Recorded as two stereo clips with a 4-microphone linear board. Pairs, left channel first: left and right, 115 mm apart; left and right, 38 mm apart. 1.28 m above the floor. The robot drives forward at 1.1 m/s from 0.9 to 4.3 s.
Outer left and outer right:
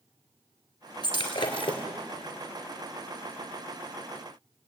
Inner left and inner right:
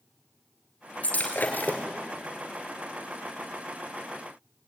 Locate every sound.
1.0 s breaking glass: 40° left (ahead or behind), 4 m; by 1.9 s 50° left (ahead or behind), 3 m